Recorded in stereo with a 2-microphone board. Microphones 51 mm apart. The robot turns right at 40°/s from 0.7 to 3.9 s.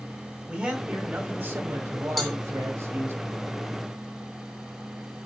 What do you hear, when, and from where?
0.5 s a man speaking: 155° right, 2 m; by 3.2 s 55° right, 2 m
2.2 s a cowbell: centre (ahead or behind), 1.1 m; by 2.4 s 5° right (ahead or behind), 1.1 m